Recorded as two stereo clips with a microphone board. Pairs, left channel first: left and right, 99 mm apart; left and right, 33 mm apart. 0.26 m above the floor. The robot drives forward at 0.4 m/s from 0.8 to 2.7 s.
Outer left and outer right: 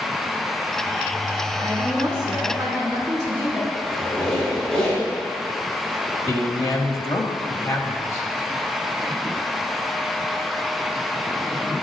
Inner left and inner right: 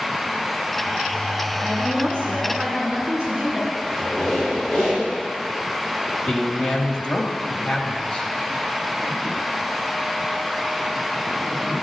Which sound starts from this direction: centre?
A squeak, at 3.8 s.